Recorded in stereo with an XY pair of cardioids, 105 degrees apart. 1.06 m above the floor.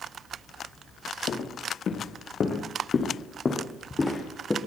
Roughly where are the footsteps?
Ahead left.